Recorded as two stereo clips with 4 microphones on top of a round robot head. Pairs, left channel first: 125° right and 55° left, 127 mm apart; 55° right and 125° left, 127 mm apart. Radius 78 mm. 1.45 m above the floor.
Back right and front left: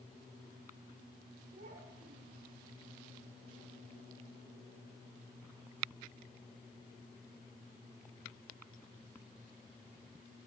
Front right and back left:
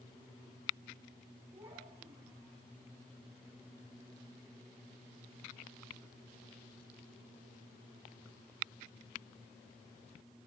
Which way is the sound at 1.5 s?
55° left.